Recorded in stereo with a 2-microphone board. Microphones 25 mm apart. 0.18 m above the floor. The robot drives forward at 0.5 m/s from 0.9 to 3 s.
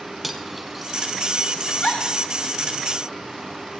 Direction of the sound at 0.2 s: 5° right (ahead or behind).